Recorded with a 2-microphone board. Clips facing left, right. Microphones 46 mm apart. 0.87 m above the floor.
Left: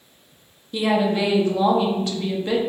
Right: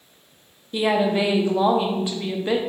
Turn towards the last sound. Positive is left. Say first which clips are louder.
# even
turn(degrees=-15)  # may be behind; listen again after turning